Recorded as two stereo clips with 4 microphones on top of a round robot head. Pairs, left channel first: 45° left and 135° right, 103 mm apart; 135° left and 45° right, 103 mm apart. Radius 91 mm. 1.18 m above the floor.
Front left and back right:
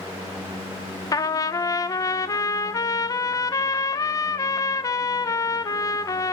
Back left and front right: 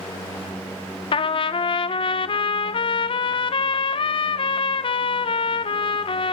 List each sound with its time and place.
1.1 s a trumpet: 100° left, 1.1 m